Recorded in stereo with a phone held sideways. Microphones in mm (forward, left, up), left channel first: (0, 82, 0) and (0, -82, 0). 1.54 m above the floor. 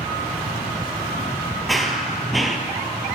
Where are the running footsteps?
Centre (ahead or behind), 1.8 m.